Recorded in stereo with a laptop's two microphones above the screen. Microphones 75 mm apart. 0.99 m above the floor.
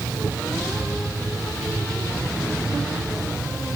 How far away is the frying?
No frying in this recording.